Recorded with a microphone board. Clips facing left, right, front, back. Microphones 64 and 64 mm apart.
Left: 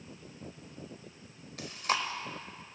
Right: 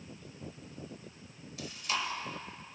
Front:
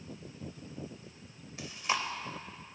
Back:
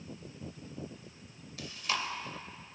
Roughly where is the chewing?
Ahead left.